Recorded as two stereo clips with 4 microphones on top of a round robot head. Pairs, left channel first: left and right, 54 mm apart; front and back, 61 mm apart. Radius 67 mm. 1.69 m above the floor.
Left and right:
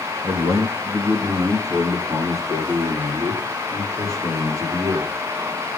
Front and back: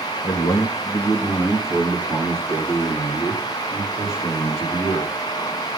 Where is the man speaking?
40° right, 1.7 m; by 5.1 s 45° right, 6 m.